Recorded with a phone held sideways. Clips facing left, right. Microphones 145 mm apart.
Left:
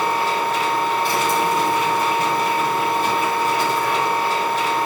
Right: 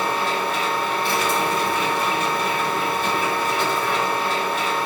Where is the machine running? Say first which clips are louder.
Left 3 dB; 40° left (ahead or behind), 1.9 m.